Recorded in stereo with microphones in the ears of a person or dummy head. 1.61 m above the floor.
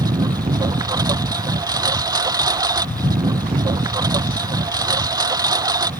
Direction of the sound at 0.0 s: 20° right (ahead or behind).